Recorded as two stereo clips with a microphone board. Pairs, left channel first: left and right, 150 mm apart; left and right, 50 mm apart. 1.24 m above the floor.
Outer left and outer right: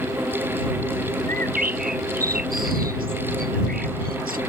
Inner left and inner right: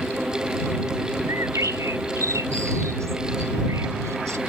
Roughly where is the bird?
Right.